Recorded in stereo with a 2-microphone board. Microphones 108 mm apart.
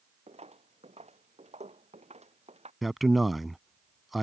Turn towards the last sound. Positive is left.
turn(degrees=0)  # may be behind; listen again after turning